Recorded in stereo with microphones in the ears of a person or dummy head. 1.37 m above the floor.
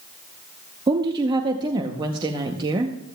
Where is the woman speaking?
25° right (ahead or behind), 0.7 m.